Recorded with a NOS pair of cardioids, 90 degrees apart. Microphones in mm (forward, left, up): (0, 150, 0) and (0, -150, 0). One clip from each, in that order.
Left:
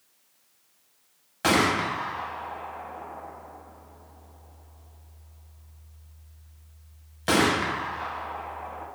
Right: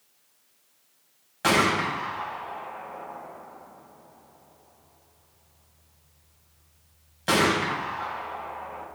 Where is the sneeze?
No sneeze in this recording.